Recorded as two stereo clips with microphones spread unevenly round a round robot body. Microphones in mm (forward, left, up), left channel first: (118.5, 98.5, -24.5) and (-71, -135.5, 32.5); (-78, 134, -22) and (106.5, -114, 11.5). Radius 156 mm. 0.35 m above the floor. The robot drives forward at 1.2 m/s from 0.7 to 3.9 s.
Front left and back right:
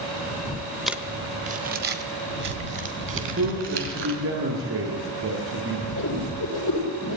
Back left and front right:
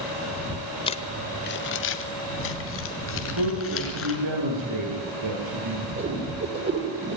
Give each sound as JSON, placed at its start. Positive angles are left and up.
{"t": 0.9, "sound": "crumpling", "azimuth_deg": 115, "distance_m": 0.9}
{"t": 3.1, "sound": "a man speaking", "azimuth_deg": -75, "distance_m": 8.5}
{"t": 6.0, "sound": "a whoosh", "azimuth_deg": 5, "distance_m": 9.0}